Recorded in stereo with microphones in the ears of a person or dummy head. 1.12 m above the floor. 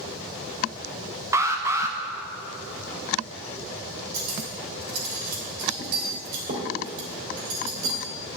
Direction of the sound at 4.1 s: 55° right (ahead or behind).